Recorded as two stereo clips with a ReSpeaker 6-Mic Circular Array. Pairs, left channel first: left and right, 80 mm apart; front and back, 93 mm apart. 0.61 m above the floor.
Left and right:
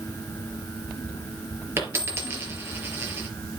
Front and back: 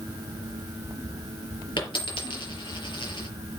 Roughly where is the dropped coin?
Ahead right.